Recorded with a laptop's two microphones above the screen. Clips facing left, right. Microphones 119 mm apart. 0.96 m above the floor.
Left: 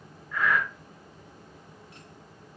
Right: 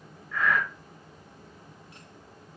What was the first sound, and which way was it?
Breathing, 10° left (ahead or behind).